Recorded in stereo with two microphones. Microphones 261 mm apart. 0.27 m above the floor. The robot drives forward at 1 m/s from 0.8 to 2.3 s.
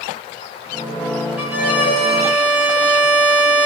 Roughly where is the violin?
Centre.